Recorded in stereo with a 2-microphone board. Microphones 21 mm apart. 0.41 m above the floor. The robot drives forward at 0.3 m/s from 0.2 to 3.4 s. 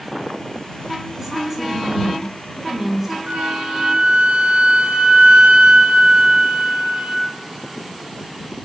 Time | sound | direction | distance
1.2 | a woman speaking | 10° right (ahead or behind) | 3 m
3.3 | a flute | 75° right (ahead or behind) | 1.6 m